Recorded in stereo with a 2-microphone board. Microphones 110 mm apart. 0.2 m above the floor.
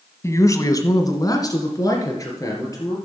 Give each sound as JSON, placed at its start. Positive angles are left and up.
{"t": 0.2, "sound": "a man speaking", "side_deg": 25, "distance_m": 1.1}